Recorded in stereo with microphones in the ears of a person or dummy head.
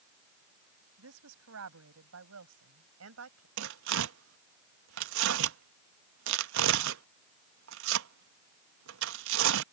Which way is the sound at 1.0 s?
85° right.